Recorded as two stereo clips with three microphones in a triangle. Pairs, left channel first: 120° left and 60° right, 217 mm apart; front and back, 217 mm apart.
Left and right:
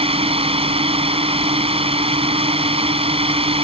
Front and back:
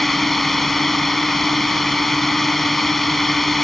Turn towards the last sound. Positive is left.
turn(degrees=-90)